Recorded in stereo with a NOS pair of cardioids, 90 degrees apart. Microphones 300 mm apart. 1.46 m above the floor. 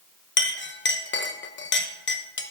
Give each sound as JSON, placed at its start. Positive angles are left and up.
{"t": 0.4, "sound": "a clink", "azimuth_deg": 40, "distance_m": 1.0}